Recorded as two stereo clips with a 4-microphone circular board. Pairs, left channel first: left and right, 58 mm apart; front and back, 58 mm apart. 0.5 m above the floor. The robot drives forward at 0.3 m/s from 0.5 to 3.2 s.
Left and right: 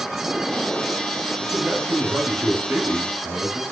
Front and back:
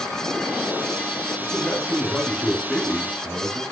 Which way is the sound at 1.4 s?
85° right.